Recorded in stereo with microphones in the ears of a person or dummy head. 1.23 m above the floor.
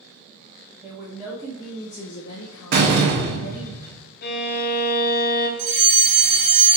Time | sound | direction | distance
0.8 | a woman speaking | 10° right (ahead or behind) | 1.0 m
2.7 | a door slam | 55° right (ahead or behind) | 0.7 m
4.2 | a violin | 55° left (ahead or behind) | 0.7 m
5.6 | a fire alarm | 50° right (ahead or behind) | 1.6 m